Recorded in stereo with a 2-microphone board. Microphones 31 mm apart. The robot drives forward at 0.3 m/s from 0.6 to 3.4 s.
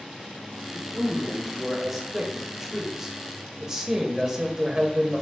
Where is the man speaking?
15° right (ahead or behind), 1.3 m; by 5.2 s 30° right (ahead or behind), 0.6 m.